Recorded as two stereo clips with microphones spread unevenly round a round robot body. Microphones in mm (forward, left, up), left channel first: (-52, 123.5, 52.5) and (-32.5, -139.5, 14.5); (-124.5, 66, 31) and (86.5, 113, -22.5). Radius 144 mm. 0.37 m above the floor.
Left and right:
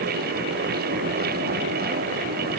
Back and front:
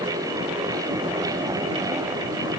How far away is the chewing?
No chewing in this recording.